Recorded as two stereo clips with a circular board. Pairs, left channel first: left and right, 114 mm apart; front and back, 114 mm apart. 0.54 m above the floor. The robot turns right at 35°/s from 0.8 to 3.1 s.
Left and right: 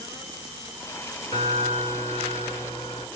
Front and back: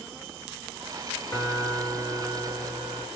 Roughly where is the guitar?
Ahead left.